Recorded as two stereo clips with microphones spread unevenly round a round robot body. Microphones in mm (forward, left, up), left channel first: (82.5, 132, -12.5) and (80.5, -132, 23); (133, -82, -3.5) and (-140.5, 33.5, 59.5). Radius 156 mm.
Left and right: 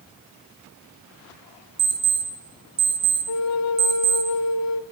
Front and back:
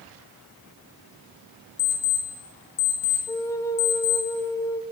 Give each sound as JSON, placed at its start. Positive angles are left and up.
{"t": 1.8, "sound": "an alarm clock", "azimuth_deg": -20, "distance_m": 5.0}
{"t": 3.3, "sound": "a flute", "azimuth_deg": 60, "distance_m": 0.8}